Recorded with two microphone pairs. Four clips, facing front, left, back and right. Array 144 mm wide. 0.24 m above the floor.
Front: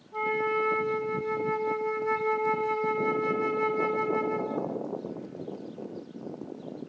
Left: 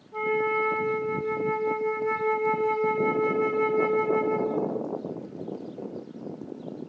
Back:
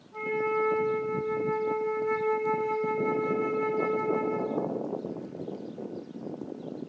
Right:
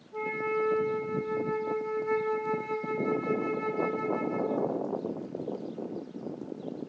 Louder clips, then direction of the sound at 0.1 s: Left 5 dB, front 1 dB; 35° left.